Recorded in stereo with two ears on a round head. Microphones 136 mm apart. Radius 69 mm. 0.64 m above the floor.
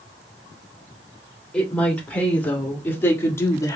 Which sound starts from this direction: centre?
A woman speaking, at 1.5 s.